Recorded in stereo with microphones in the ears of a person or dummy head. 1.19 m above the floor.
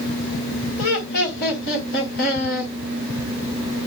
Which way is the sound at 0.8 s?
60° left (ahead or behind).